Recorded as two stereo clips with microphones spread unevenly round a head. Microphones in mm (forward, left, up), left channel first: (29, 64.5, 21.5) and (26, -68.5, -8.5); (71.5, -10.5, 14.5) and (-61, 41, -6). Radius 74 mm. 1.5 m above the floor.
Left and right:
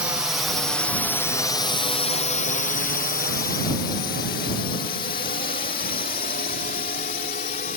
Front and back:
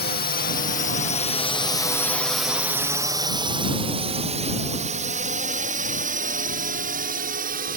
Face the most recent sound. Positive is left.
turn(degrees=130)